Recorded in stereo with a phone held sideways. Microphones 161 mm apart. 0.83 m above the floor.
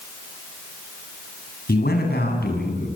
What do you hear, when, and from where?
1.7 s a man speaking: 85° left, 8 m